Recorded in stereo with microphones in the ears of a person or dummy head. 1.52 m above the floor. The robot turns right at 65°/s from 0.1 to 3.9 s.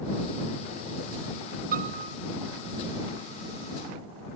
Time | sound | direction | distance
1.7 | a piano | 50° right (ahead or behind) | ?